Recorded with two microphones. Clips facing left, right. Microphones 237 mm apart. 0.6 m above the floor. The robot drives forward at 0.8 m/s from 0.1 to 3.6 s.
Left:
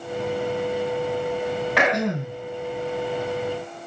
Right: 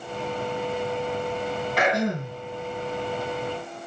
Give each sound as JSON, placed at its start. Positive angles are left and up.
{"t": 1.8, "sound": "throat clearing", "side_deg": 85, "distance_m": 2.5}